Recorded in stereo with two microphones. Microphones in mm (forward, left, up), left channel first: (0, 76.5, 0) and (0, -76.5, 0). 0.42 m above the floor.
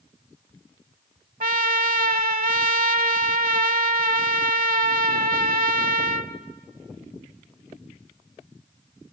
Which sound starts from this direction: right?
A trumpet, at 1.4 s.